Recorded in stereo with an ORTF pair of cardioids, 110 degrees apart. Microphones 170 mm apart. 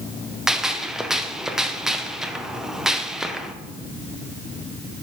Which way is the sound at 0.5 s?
Straight ahead.